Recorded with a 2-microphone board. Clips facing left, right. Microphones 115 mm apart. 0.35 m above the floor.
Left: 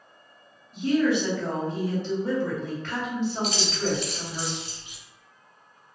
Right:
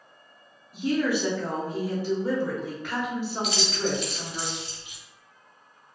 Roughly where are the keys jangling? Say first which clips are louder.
Left 1 dB; left.